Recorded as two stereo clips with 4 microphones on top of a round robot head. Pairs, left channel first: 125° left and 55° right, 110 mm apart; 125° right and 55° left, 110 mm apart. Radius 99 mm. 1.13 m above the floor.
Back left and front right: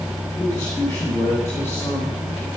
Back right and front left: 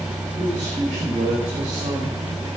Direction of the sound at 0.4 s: 55° left.